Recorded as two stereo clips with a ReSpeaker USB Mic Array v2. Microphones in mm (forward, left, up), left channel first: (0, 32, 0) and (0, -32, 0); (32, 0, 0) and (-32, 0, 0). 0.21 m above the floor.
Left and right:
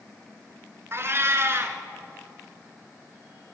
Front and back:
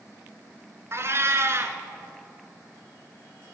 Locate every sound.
0.9 s a cat meowing: 135° right, 1.0 m